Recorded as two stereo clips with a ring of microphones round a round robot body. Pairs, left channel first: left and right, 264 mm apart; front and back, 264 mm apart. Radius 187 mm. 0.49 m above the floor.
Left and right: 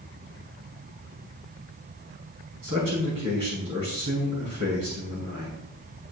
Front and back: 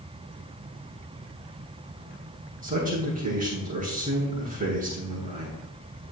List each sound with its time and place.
2.6 s a man speaking: 120° right, 5.5 m